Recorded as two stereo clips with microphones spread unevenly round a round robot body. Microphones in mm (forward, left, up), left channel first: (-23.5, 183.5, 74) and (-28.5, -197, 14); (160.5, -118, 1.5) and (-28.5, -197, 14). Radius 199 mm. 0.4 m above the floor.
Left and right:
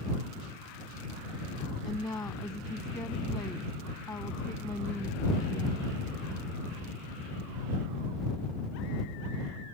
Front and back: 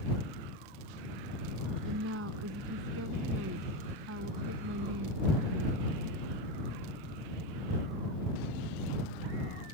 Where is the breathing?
I don't hear breathing.